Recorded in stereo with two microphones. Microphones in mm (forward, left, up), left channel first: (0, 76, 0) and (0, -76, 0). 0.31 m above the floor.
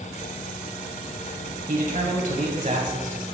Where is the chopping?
No chopping in this recording.